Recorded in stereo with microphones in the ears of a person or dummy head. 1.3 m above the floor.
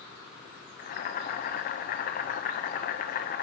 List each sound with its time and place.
0.8 s boiling: 40° left (ahead or behind), 0.6 m